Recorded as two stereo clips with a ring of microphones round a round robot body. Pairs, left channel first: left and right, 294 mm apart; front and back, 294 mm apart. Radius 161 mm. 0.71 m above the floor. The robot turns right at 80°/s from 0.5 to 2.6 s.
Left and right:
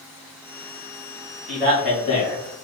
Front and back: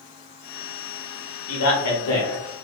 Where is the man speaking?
30° right, 1.2 m; by 2.4 s 45° left, 1.2 m.